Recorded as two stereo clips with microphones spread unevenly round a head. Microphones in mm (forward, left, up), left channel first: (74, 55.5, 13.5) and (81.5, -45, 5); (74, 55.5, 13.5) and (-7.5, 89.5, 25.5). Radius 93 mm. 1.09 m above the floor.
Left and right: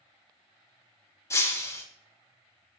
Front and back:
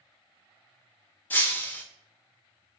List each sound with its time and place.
1.3 s breaking glass: 50° left, 0.8 m